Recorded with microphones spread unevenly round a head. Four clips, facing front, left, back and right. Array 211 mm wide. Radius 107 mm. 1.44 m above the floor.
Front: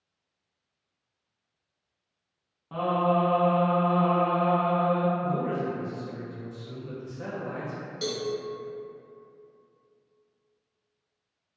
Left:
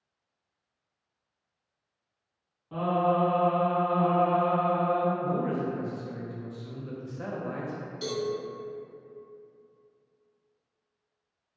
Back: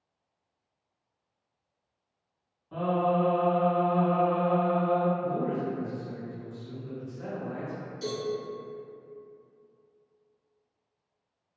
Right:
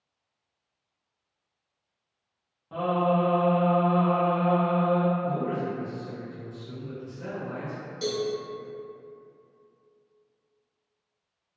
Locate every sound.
2.7 s singing: straight ahead, 1.2 m
5.2 s a man speaking: 70° left, 0.6 m
8.0 s a cowbell: straight ahead, 1.0 m